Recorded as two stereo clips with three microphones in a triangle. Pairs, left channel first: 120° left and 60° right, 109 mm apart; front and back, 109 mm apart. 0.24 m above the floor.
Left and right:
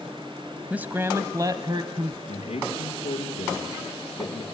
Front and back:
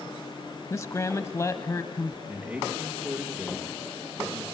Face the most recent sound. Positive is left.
turn(degrees=105)